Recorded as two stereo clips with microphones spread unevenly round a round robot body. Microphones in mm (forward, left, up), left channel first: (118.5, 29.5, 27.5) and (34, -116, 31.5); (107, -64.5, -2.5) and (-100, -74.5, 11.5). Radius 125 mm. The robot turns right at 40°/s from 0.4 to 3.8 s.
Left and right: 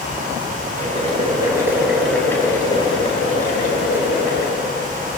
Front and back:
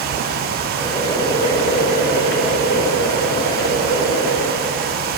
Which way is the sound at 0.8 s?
80° right.